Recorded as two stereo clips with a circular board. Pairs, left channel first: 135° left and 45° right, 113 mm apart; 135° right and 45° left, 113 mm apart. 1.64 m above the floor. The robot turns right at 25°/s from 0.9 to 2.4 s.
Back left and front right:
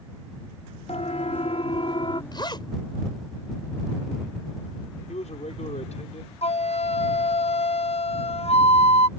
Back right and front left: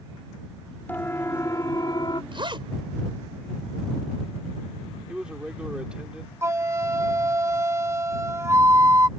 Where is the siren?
150° left; by 2.2 s 175° left.